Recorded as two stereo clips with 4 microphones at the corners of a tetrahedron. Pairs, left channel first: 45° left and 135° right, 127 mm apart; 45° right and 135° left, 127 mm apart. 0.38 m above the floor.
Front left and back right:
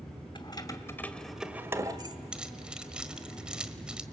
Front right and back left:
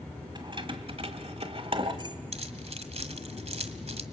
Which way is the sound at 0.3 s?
90° left.